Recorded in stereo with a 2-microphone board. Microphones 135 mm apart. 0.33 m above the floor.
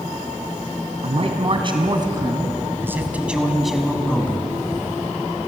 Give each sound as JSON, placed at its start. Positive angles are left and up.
{"t": 1.0, "sound": "a man speaking", "side_deg": -50, "distance_m": 3.0}